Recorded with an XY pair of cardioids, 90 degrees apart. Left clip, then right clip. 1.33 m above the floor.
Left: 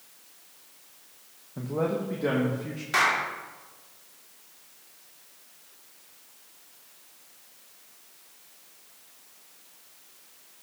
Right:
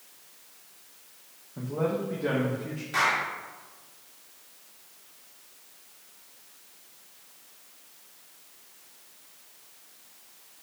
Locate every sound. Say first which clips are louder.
1.6 s a man speaking: left 1 dB; 25° left, 1.4 m; by 2.8 s 35° left, 2.5 m
2.9 s a clap: left 2 dB; 65° left, 2.5 m